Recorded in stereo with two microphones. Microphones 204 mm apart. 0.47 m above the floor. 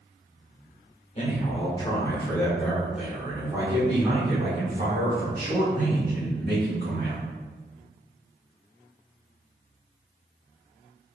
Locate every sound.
1.1 s a man speaking: 35° left (ahead or behind), 1.6 m; by 7.2 s 60° right (ahead or behind), 3 m